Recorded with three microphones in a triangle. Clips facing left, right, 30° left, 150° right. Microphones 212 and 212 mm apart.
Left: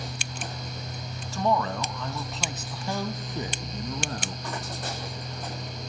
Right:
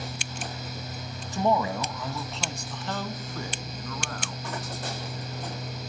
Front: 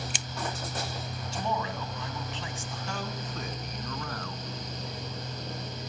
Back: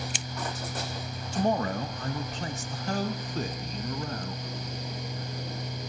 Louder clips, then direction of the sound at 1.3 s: Right 1 dB, back 7 dB; 160° right.